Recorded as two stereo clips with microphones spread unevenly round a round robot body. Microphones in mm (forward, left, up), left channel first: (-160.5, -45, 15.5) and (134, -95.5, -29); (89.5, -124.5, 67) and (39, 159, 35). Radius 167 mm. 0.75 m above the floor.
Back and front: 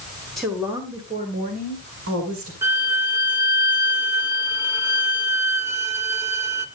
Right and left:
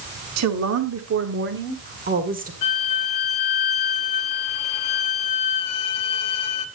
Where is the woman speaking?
80° left, 2.0 m; by 2.5 s 40° left, 3 m.